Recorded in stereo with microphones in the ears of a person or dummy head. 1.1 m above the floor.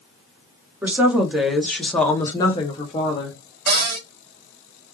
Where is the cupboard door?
55° right (ahead or behind), 1.1 m.